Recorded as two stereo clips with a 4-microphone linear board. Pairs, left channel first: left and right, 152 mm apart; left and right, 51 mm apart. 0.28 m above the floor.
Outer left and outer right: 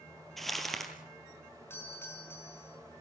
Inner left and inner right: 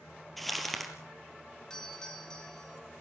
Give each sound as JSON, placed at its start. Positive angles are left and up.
{"t": 0.4, "sound": "crumpling", "side_deg": 0, "distance_m": 3.0}
{"t": 1.7, "sound": "a doorbell", "side_deg": 15, "distance_m": 4.0}